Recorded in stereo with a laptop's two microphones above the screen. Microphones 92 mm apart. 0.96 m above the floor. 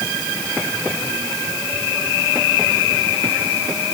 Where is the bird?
I don't hear a bird.